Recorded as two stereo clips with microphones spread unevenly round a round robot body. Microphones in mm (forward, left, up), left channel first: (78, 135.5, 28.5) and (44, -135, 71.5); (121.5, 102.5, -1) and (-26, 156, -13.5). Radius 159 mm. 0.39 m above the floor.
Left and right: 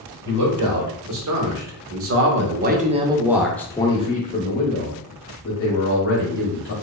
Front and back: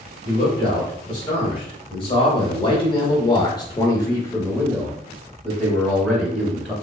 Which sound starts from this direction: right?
A man speaking, at 0.2 s.